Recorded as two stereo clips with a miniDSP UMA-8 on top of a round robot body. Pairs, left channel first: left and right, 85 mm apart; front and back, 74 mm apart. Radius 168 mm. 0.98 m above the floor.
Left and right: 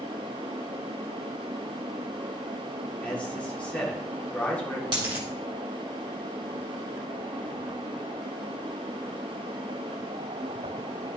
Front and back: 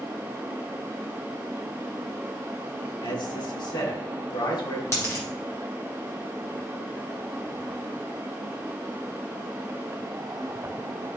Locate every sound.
3.0 s a man speaking: 15° left, 2.5 m
4.9 s a dropped coin: 55° right, 1.7 m